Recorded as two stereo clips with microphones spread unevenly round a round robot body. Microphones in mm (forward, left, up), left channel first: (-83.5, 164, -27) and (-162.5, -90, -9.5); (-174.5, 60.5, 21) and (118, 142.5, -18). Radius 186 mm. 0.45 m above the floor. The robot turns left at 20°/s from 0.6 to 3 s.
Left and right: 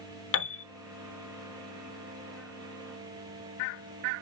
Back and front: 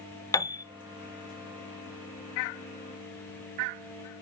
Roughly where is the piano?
Behind left.